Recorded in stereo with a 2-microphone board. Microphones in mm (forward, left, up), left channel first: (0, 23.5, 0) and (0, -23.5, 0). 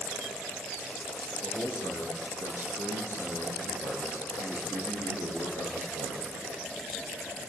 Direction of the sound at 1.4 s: 80° left.